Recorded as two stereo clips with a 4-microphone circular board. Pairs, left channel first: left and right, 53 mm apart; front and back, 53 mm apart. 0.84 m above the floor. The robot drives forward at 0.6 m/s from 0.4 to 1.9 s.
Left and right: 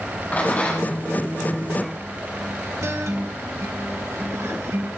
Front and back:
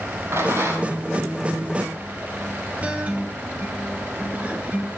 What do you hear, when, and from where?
0.3 s a rattle: 145° left, 6 m; by 0.9 s 150° left, 6 m
2.8 s a guitar: 115° right, 1.8 m